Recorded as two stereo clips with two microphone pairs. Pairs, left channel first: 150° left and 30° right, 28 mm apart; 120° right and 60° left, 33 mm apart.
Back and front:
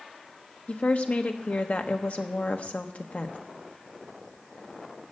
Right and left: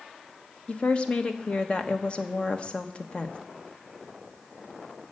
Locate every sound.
0.7 s a woman speaking: 175° right, 1.1 m